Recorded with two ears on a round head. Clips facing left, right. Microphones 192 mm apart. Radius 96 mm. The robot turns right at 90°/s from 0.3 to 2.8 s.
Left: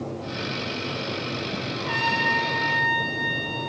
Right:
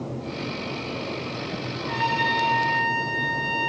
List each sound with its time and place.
1.8 s a trumpet: 130° left, 3.5 m; by 3.7 s 140° right, 3.5 m